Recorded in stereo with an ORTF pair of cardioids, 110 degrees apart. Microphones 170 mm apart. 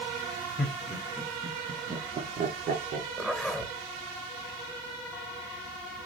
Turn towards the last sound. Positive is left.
turn(degrees=0)